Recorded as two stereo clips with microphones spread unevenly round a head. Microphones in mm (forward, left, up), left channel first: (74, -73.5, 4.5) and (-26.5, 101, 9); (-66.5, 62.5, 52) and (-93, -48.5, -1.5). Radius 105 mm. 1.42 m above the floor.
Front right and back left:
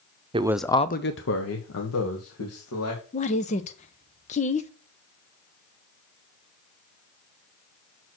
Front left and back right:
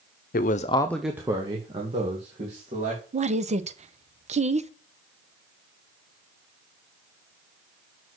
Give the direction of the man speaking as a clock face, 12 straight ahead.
10 o'clock.